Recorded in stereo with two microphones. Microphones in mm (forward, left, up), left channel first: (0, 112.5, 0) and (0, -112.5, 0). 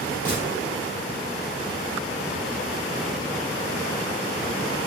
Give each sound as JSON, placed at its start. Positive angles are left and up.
{"t": 0.2, "sound": "a gunshot", "side_deg": 5, "distance_m": 3.5}